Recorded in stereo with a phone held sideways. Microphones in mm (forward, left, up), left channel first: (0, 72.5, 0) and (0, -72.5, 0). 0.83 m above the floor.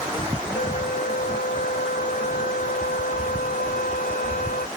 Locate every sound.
0.5 s a flute: 80° left